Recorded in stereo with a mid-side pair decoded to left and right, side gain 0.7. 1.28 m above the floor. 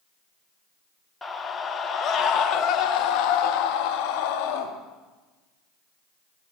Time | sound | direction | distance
1.2 | a scream | 15° left | 1.3 m